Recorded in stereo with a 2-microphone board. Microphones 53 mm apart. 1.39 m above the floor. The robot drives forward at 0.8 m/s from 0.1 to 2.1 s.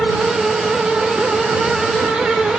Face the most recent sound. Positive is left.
No sound to turn to.